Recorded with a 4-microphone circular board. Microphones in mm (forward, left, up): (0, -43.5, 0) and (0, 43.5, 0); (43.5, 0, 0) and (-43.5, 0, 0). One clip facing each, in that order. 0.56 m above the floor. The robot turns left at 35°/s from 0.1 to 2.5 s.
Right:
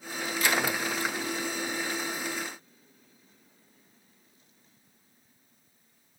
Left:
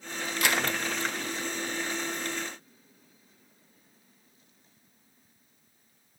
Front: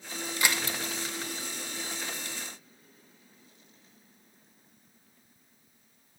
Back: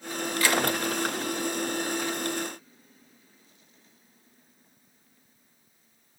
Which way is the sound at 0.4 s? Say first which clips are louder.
Even, back 5 dB; 70° left.